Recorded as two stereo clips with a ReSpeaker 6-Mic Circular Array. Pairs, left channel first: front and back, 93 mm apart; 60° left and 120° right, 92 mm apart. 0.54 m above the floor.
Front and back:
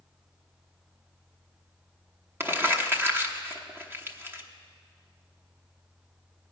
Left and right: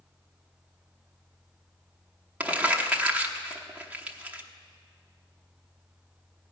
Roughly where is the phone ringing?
I don't hear a phone ringing.